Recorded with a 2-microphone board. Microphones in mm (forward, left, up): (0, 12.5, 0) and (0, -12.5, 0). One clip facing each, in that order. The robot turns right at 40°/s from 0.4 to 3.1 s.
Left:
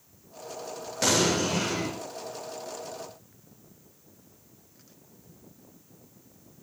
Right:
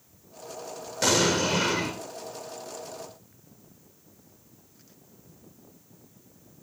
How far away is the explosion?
About 7 m.